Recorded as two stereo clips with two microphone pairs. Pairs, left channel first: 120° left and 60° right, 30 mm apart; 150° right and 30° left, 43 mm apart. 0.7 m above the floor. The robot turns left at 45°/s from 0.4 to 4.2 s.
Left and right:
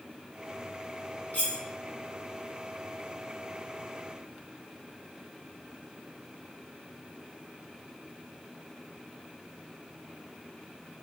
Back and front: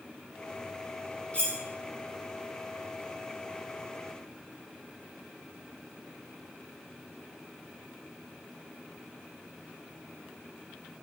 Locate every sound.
1.3 s cutlery clinking: 150° left, 0.6 m; by 1.6 s 140° left, 0.6 m